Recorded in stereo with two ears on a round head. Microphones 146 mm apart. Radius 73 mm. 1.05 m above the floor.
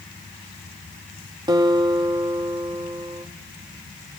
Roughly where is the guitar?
Right.